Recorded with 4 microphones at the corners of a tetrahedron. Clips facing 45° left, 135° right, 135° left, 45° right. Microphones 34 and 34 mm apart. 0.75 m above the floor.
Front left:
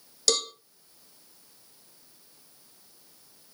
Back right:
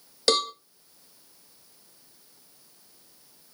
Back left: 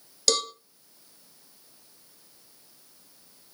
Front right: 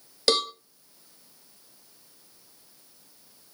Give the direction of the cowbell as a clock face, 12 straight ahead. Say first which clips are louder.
Back right 4 dB, front right 3 dB; 3 o'clock.